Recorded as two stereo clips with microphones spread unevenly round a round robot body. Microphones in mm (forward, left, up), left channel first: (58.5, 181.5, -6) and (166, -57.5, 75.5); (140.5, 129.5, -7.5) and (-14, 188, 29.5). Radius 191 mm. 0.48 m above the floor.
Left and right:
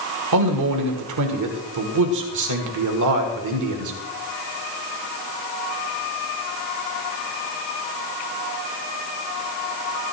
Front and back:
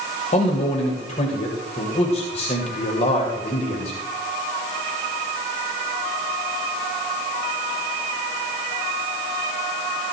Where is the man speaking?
65° right, 2.0 m.